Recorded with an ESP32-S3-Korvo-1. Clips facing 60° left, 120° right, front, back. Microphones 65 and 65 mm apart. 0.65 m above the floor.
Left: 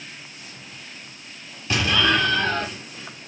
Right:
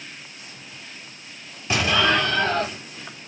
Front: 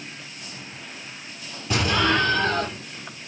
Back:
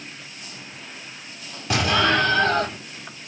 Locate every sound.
1.7 s an explosion: 170° left, 3.5 m